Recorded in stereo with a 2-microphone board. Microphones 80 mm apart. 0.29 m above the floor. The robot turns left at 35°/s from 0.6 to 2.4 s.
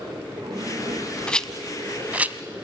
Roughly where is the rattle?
Centre.